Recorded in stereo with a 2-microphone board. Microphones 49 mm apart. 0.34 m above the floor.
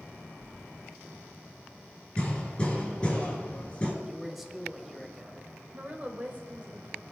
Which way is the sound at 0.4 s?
Centre (ahead or behind).